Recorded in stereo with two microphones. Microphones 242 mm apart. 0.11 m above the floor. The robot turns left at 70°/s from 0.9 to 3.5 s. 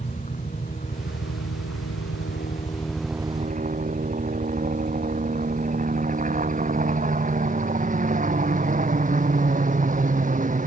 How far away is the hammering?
No hammering in this recording.